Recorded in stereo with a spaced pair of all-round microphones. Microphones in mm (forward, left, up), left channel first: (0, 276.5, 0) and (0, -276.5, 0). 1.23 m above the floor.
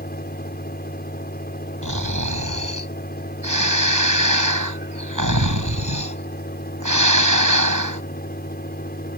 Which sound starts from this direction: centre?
A fan, at 0.0 s.